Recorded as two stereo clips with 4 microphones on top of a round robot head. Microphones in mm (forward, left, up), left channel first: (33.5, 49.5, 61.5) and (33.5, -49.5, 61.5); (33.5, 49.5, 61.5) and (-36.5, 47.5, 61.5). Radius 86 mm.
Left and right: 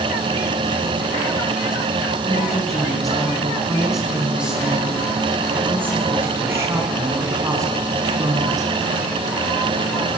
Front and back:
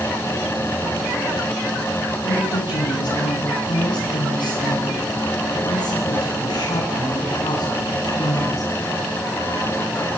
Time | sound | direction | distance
2.2 | a woman speaking | 10° left | 6 m